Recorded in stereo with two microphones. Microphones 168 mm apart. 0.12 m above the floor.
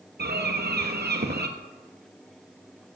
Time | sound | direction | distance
0.2 | a bird | 70° right (ahead or behind) | 0.8 m